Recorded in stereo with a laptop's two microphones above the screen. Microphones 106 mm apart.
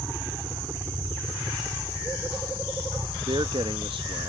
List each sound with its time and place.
0.0 s a helicopter: 20° right (ahead or behind); by 4.3 s 30° right (ahead or behind)
3.3 s a man speaking: 55° right (ahead or behind)